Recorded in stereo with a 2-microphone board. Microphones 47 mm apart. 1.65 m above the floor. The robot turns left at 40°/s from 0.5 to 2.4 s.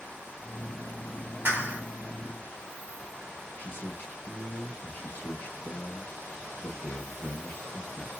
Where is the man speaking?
35° left (ahead or behind), 0.9 m.